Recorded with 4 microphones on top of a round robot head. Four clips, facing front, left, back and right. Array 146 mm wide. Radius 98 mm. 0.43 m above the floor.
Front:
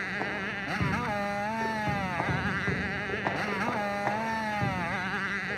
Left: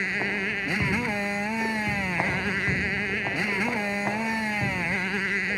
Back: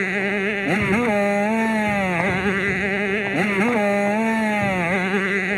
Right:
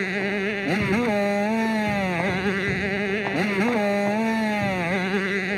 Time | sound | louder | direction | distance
0.0 | a motorcycle | right 5 dB, back 11 dB | 155° right | ?